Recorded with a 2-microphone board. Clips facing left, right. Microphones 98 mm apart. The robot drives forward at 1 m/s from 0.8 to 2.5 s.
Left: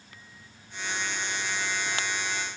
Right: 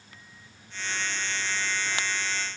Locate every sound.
Only background noise.